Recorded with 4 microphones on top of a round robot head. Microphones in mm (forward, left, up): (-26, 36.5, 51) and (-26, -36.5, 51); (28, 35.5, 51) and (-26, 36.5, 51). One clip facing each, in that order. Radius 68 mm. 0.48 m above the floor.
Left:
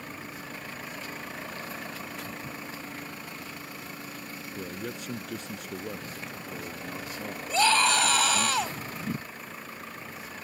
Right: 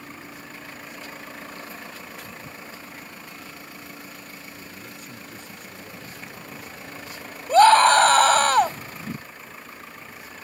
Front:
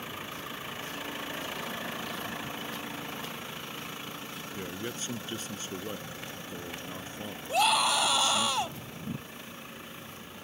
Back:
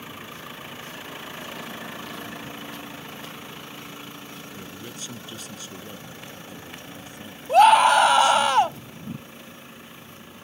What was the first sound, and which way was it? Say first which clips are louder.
A man speaking: left 5 dB, front 2 dB; 55° left.